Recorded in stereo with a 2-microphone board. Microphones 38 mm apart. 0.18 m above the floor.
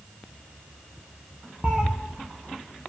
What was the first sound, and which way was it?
A cat meowing, 20° right (ahead or behind).